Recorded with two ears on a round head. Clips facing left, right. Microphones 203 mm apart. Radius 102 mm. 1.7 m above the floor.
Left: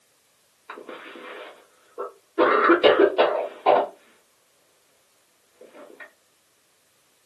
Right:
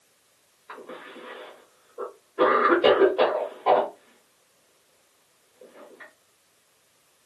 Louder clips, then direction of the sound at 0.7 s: Left 2 dB; 50° left (ahead or behind).